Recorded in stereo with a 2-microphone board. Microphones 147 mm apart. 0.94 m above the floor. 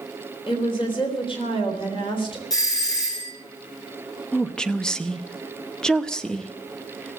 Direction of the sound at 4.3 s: 5° left (ahead or behind).